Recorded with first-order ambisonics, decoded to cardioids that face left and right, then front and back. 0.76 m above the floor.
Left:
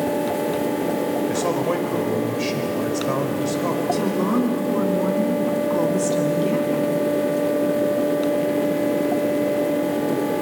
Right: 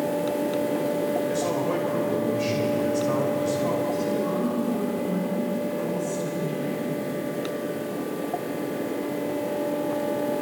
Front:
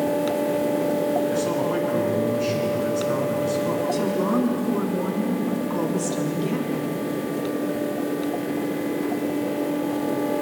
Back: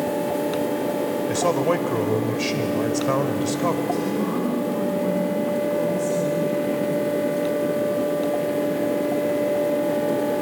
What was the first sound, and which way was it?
A man speaking, 160° left.